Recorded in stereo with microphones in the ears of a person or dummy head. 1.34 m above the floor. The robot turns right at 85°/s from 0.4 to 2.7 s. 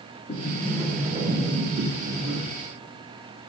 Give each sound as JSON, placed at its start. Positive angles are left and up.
{"t": 0.3, "sound": "a sliding door", "azimuth_deg": 140, "distance_m": 2.5}